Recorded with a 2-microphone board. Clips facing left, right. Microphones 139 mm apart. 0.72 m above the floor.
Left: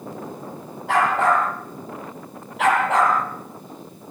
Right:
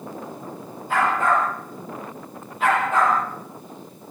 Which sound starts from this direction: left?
A dog barking, at 0.9 s.